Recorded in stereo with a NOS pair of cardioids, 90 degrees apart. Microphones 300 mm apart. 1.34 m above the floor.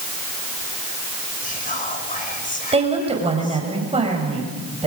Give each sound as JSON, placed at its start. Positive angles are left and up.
{"t": 1.4, "sound": "whispering", "azimuth_deg": 25, "distance_m": 5.5}
{"t": 2.7, "sound": "a woman speaking", "azimuth_deg": -20, "distance_m": 6.0}